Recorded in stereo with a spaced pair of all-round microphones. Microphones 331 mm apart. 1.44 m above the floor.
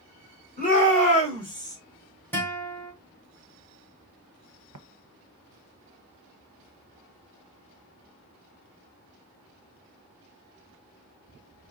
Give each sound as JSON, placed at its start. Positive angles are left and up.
{"t": 0.6, "sound": "a shout", "side_deg": 25, "distance_m": 3.5}
{"t": 2.3, "sound": "a guitar", "side_deg": 5, "distance_m": 2.5}
{"t": 4.7, "sound": "tapping", "side_deg": -65, "distance_m": 0.6}